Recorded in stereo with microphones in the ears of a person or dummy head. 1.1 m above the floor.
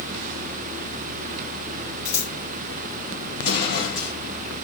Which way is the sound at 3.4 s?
65° left (ahead or behind).